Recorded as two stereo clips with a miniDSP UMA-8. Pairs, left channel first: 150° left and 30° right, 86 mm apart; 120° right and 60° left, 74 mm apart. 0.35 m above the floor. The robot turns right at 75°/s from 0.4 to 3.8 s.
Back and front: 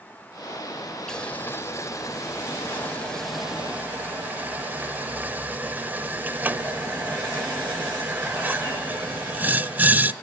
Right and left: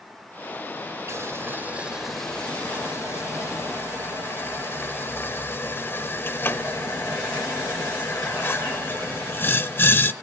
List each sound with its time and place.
1.1 s boiling: 70° left, 0.9 m; by 10.1 s 85° right, 0.9 m